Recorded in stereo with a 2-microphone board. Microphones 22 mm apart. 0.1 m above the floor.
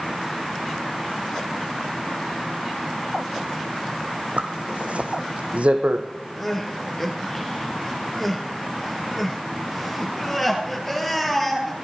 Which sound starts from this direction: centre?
Crying, at 6.4 s.